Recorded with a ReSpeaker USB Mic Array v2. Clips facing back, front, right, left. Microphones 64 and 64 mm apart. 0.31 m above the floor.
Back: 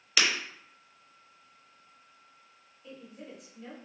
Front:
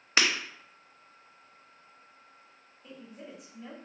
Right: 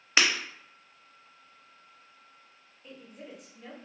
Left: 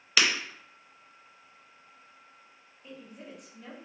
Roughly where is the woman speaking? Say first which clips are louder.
Even, left 1 dB; ahead.